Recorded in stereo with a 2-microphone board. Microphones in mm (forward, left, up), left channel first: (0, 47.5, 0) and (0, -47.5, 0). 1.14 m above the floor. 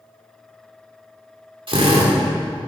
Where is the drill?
65° right (ahead or behind), 2.5 m.